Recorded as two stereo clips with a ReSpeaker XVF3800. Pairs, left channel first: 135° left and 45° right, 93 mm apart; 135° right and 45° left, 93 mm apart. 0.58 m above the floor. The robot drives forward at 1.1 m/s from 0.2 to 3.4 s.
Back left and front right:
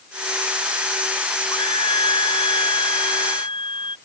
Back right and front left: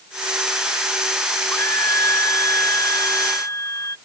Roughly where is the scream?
Behind.